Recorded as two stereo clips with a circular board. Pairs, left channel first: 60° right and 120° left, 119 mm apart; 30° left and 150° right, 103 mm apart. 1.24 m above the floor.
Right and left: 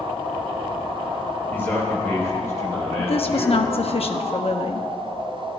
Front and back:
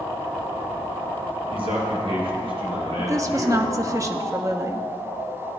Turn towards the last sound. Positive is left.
turn(degrees=-90)